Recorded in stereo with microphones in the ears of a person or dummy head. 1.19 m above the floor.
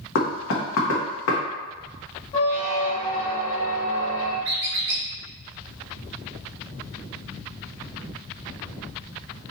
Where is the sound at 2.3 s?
35° left (ahead or behind), 1.5 m.